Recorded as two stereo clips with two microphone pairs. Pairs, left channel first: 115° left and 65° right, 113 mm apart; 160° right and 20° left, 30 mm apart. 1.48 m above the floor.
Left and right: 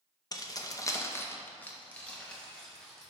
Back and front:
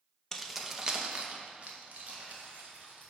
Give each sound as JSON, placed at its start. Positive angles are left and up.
{"t": 0.3, "sound": "keys jangling", "azimuth_deg": 130, "distance_m": 0.7}